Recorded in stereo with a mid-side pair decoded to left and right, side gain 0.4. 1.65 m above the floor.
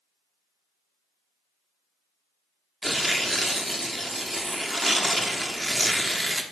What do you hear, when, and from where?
2.8 s tearing paper: 15° right, 1.0 m